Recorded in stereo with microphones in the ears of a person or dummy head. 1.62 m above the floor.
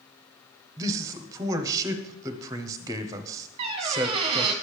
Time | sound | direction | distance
0.8 | a man speaking | 15° right (ahead or behind) | 0.8 m
3.6 | a squeak | 25° right (ahead or behind) | 0.9 m